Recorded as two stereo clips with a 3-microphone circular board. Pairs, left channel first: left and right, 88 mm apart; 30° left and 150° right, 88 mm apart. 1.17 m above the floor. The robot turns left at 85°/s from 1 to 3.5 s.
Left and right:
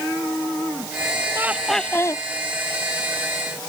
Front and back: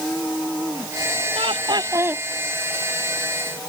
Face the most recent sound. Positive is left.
turn(degrees=25)